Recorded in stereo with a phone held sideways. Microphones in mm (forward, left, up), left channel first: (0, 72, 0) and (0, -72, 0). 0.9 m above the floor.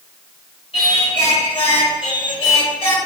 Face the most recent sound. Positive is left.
turn(degrees=40)  # may be behind; listen again after turning